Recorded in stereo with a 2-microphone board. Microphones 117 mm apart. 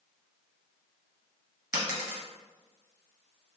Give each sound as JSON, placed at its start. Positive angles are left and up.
{"t": 1.7, "sound": "a dropped coin", "side_deg": -25, "distance_m": 1.5}